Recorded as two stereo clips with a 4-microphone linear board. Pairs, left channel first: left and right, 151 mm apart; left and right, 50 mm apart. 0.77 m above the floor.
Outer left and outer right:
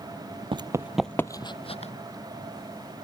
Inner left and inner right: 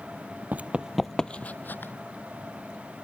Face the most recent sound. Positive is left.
turn(degrees=50)  # may be behind; listen again after turning